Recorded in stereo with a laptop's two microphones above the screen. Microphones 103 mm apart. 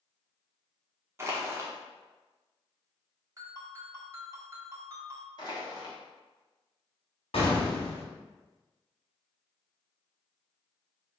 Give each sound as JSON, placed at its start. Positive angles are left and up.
{"t": 1.2, "sound": "crushing", "side_deg": -25, "distance_m": 1.0}
{"t": 3.4, "sound": "a ringtone", "side_deg": -35, "distance_m": 1.8}
{"t": 5.4, "sound": "crushing", "side_deg": 45, "distance_m": 1.3}
{"t": 7.3, "sound": "an explosion", "side_deg": 75, "distance_m": 1.5}